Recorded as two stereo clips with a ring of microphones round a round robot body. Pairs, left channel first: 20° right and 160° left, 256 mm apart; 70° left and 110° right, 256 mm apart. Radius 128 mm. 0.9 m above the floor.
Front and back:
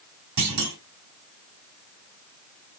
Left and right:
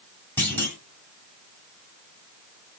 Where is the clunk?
150° left, 2 m.